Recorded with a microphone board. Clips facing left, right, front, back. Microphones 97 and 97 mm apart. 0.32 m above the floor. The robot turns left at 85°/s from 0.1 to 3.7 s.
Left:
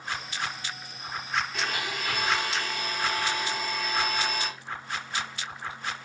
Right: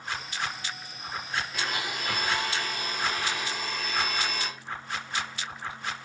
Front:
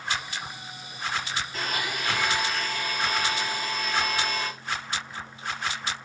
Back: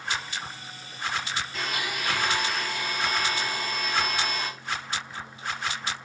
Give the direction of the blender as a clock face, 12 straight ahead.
12 o'clock.